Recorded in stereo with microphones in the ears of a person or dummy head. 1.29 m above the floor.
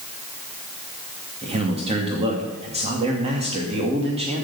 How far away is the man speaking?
About 2 m.